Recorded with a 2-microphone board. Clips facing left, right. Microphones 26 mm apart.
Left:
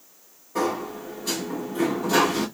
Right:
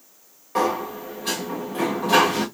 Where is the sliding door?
80° right, 1.7 m.